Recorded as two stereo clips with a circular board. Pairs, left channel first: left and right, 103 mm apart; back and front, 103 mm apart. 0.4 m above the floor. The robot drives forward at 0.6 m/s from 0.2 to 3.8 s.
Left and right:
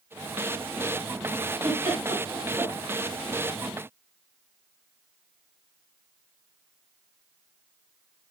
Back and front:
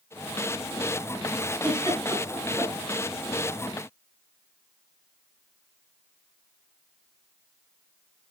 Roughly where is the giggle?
Behind right.